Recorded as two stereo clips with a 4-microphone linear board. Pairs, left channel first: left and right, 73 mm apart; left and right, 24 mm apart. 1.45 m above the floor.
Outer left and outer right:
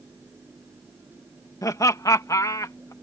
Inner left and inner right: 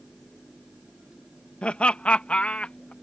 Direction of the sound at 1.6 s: 50° left (ahead or behind).